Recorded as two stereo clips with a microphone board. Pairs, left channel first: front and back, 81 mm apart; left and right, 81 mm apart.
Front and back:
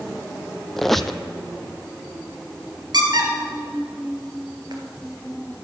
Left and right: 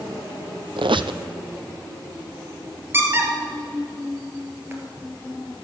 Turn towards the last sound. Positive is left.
turn(degrees=-150)